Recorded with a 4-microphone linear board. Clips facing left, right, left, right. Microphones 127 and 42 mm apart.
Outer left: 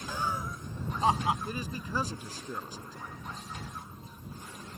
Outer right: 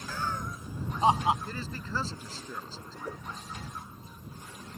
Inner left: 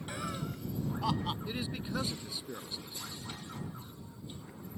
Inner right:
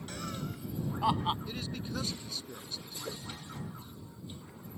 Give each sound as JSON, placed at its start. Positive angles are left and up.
{"t": 0.1, "sound": "laughter", "side_deg": 20}
{"t": 1.4, "sound": "a man speaking", "side_deg": 15}
{"t": 3.0, "sound": "a whoosh", "side_deg": -90}